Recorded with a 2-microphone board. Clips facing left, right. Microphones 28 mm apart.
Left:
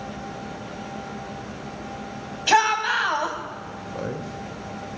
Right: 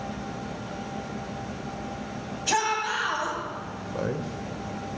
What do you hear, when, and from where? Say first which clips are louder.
2.5 s a shout: left 7 dB; 40° left (ahead or behind), 2.5 m
3.9 s a man speaking: right 1 dB; 5° right (ahead or behind), 1.0 m